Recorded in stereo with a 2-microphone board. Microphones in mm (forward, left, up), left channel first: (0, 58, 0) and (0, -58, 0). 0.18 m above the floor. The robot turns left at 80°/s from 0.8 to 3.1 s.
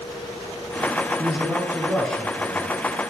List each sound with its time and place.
1.2 s a man speaking: 110° right, 2.5 m; by 2.7 s 130° left, 2.5 m